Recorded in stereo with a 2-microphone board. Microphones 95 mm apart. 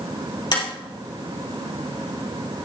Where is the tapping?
50° left (ahead or behind), 4 m.